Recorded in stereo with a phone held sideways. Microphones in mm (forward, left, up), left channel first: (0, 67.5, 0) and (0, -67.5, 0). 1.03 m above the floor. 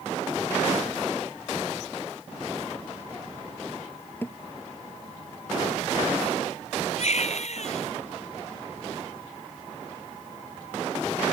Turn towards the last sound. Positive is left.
turn(degrees=60)  # may be behind; listen again after turning